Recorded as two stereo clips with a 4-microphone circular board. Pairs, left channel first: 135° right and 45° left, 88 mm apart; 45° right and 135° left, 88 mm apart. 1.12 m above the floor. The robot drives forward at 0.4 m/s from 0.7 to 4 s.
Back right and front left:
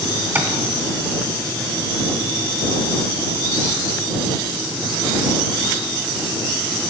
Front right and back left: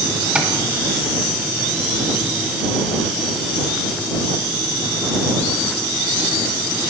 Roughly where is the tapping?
Left.